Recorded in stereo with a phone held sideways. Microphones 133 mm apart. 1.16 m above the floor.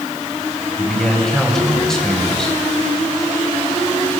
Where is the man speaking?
5° left (ahead or behind), 6.5 m.